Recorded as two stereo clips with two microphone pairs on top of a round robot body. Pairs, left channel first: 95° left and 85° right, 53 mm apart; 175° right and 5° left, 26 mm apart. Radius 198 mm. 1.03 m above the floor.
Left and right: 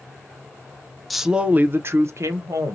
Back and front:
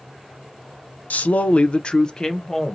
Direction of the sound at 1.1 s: Straight behind.